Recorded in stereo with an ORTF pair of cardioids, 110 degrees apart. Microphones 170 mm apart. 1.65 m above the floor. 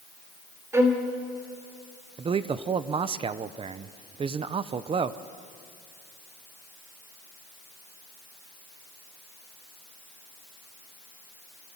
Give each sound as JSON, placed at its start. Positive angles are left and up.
{"t": 0.7, "sound": "a violin", "azimuth_deg": -15, "distance_m": 3.0}
{"t": 2.2, "sound": "a man speaking", "azimuth_deg": -35, "distance_m": 0.9}